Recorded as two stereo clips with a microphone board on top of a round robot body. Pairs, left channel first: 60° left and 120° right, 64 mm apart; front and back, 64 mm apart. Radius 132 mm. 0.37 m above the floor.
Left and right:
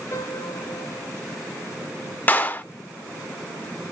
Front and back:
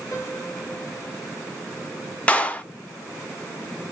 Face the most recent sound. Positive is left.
turn(degrees=45)